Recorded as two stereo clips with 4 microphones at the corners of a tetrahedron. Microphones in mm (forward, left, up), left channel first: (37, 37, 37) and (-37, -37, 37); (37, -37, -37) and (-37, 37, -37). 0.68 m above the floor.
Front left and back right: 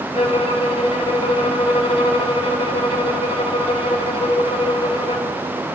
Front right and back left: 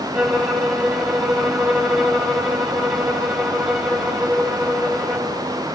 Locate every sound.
0.1 s a violin: 50° left, 1.7 m